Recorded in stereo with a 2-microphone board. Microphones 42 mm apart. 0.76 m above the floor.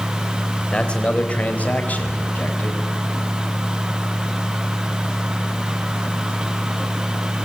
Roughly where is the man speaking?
Left.